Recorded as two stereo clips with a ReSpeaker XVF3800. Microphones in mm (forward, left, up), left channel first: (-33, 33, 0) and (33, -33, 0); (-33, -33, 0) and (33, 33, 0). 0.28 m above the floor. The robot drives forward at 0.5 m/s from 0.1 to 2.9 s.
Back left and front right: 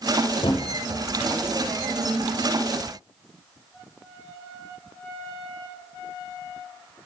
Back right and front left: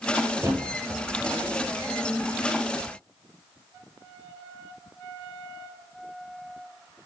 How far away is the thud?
About 1.1 m.